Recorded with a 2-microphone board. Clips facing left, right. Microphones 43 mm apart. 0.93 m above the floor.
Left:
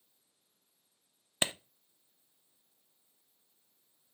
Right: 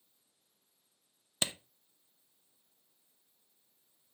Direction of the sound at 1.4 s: 25° left (ahead or behind).